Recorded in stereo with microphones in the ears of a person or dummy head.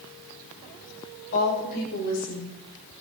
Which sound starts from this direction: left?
A woman speaking, at 1.3 s.